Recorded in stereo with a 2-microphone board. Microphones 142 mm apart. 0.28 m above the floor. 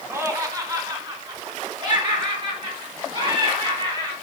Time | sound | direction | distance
0.1 | laughter | 15° right (ahead or behind) | 1.6 m